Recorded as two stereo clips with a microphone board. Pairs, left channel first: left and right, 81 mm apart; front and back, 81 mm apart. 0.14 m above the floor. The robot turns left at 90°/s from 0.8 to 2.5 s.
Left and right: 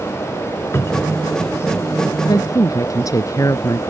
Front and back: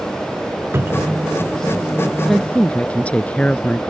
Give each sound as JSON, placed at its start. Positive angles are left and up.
{"t": 0.7, "sound": "a cupboard door", "azimuth_deg": 135}
{"t": 2.2, "sound": "a woman speaking", "azimuth_deg": 90}